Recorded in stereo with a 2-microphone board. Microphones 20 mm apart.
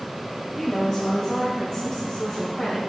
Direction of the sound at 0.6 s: 35° left (ahead or behind).